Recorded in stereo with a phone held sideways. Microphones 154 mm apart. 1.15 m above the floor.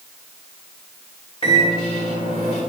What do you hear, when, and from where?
1.4 s a microwave: 35° left (ahead or behind), 3 m